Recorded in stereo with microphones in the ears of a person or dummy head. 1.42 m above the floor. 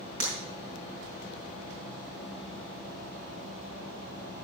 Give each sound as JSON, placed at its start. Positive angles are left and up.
{"t": 0.2, "sound": "breaking glass", "side_deg": -50, "distance_m": 5.0}